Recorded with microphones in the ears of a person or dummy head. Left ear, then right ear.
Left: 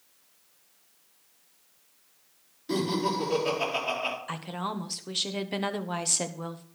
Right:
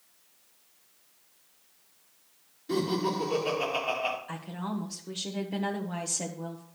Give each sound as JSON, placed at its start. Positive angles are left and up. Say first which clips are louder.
{"t": 2.7, "sound": "laughter", "louder": "left 1 dB", "side_deg": 20, "distance_m": 4.0}
{"t": 4.3, "sound": "a woman speaking", "louder": "left 4 dB", "side_deg": 40, "distance_m": 1.1}